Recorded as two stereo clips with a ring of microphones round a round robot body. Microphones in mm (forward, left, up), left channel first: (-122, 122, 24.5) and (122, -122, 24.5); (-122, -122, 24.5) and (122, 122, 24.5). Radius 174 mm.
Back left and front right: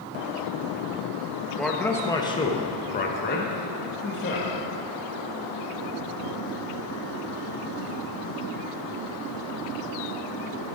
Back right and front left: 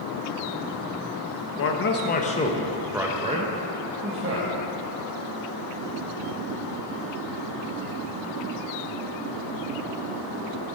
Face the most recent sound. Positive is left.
turn(degrees=85)